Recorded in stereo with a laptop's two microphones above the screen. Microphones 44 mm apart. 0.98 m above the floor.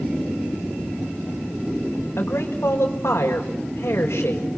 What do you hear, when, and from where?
2.2 s a man speaking: 65° left (ahead or behind), 4.5 m